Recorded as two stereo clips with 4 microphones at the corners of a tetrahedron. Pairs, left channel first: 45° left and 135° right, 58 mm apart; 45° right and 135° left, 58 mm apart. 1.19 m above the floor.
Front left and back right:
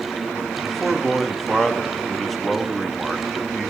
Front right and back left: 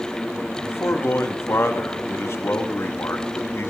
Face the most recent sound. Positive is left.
turn(degrees=-40)